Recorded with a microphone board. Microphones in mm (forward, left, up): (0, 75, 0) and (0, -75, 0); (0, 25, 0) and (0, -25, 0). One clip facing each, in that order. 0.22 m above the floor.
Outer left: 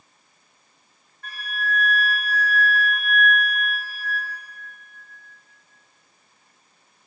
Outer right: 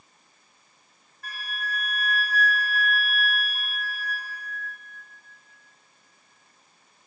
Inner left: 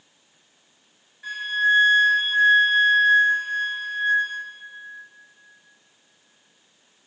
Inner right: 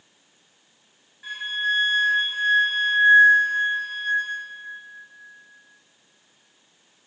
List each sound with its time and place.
1.2 s a flute: 10° right (ahead or behind), 1.2 m